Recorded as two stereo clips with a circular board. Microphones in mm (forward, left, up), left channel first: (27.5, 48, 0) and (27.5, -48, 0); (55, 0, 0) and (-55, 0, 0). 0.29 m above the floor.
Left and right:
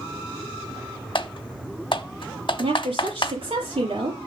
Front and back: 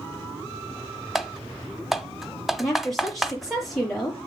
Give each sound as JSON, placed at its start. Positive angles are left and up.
{"t": 1.1, "sound": "typing on a keyboard", "azimuth_deg": 90, "distance_m": 0.8}
{"t": 2.6, "sound": "a woman speaking", "azimuth_deg": -90, "distance_m": 6.0}